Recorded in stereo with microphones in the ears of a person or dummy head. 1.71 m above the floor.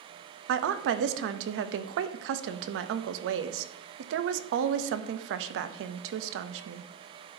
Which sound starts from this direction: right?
A woman speaking, at 0.5 s.